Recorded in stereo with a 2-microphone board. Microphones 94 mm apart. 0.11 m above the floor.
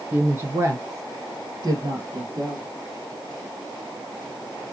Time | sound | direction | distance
0.1 | a woman speaking | 20° right (ahead or behind) | 1.2 m